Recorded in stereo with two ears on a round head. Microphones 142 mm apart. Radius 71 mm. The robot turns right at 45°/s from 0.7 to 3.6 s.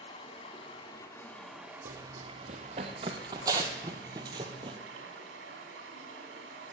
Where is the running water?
140° left, 3 m; by 6.7 s 90° right, 3 m.